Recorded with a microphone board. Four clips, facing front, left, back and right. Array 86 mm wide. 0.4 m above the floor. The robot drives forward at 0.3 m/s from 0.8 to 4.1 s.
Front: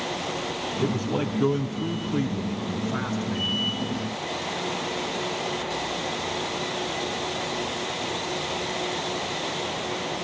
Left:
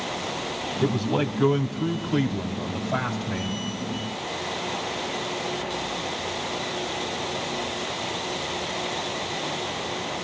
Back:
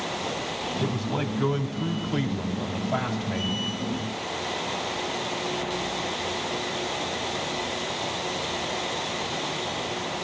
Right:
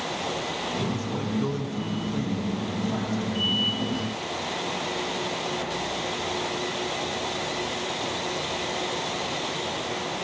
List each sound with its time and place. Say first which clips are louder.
0.8 s a man speaking: left 5 dB, front 4 dB; 90° left, 1.2 m; by 3.6 s 140° left, 1.5 m